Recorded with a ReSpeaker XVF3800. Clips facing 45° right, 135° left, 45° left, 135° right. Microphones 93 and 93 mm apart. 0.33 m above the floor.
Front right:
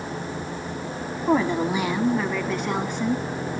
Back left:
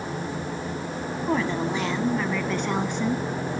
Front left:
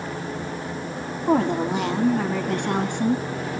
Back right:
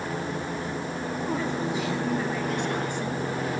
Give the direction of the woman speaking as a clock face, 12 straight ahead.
11 o'clock.